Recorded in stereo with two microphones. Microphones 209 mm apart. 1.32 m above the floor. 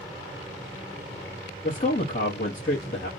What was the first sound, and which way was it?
A man speaking, 40° left (ahead or behind).